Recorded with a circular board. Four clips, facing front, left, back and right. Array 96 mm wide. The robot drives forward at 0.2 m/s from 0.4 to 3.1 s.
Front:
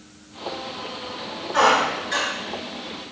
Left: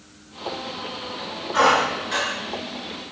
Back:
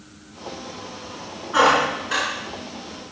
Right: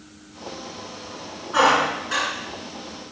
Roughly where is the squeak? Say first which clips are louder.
Even, back 1 dB; behind right.